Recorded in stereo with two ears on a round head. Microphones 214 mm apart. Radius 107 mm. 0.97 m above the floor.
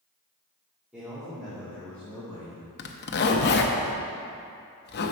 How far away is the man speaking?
About 2 m.